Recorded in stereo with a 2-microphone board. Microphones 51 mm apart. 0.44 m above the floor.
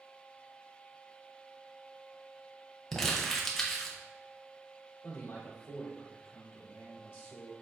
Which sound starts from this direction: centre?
Crumpling, at 2.9 s.